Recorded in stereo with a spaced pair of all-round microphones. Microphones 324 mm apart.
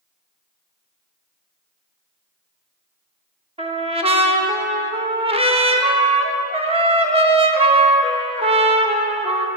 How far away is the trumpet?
About 0.7 m.